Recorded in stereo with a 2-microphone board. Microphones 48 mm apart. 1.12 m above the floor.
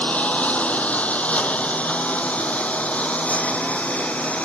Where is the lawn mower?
30° left (ahead or behind); by 4.5 s 25° left (ahead or behind).